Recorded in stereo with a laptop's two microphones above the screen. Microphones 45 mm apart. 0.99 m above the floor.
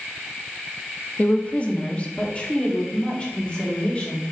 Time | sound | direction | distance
1.2 | a woman speaking | 35° left (ahead or behind) | 0.7 m